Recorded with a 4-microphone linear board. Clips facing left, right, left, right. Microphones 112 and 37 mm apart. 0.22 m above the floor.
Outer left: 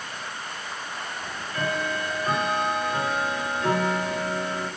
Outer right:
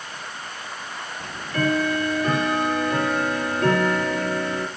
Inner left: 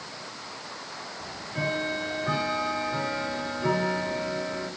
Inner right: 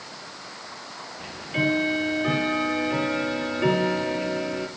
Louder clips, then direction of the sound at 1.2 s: Outer right 6 dB, inner right 6 dB; 60° right (ahead or behind).